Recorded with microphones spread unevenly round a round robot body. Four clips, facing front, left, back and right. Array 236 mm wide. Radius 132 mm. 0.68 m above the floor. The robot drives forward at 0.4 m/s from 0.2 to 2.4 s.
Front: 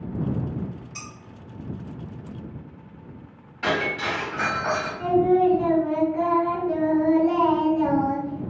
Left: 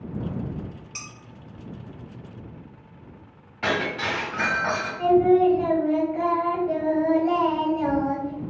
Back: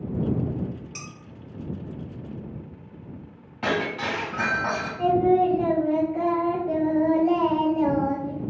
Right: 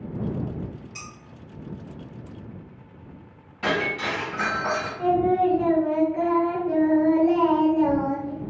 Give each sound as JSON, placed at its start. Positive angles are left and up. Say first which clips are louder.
{"t": 0.9, "sound": "dishes clattering", "louder": "right 1 dB, even", "azimuth_deg": 145, "distance_m": 1.5}
{"t": 3.6, "sound": "breaking glass", "louder": "even, front 1 dB", "azimuth_deg": 175, "distance_m": 1.6}
{"t": 5.0, "sound": "singing", "louder": "left 4 dB, even", "azimuth_deg": 180, "distance_m": 1.0}